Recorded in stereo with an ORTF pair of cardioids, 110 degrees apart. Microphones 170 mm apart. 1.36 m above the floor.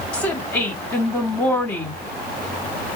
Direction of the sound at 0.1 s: 15° left.